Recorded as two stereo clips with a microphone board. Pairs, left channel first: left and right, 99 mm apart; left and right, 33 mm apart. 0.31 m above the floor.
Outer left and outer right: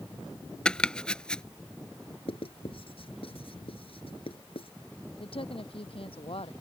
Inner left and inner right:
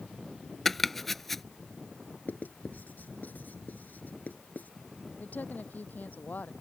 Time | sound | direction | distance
0.7 | chopping | 10° left (ahead or behind) | ?
2.3 | writing | 70° left (ahead or behind) | ?
5.2 | a woman speaking | 65° left (ahead or behind) | ?